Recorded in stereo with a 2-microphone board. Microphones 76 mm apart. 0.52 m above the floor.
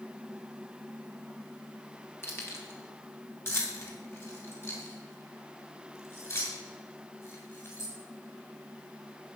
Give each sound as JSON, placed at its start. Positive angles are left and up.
{"t": 2.2, "sound": "keys jangling", "side_deg": 30, "distance_m": 3.0}